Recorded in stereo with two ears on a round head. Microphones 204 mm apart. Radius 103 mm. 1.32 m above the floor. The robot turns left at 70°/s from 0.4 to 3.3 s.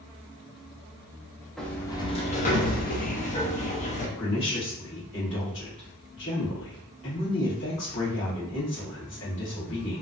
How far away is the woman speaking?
About 1.5 m.